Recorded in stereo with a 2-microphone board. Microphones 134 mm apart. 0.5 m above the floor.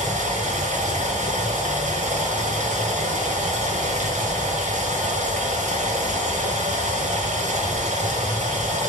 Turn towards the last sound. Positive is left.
turn(degrees=-65)  # may be behind; listen again after turning